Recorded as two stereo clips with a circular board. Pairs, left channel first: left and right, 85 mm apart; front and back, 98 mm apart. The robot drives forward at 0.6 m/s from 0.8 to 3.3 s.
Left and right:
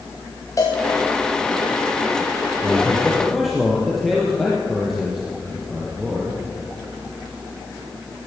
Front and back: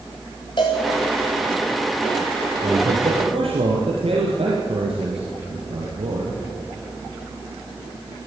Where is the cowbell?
40° left, 5 m.